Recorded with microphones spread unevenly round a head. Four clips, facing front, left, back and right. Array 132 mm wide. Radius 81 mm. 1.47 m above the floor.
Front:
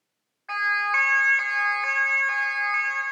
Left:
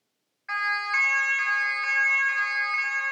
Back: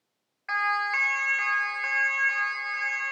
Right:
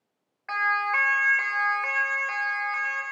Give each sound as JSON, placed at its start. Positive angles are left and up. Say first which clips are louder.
{"t": 0.5, "sound": "a siren", "louder": "right 3 dB, front 2 dB", "azimuth_deg": -105, "distance_m": 2.5}